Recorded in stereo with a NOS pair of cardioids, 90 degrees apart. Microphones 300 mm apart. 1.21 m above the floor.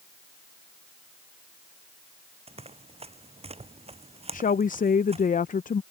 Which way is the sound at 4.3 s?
25° left.